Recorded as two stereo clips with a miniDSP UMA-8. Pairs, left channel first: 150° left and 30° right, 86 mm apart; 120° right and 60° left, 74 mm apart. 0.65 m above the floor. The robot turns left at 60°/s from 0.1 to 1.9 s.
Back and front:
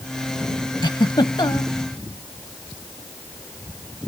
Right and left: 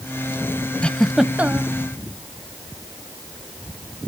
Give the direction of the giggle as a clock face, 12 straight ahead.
6 o'clock.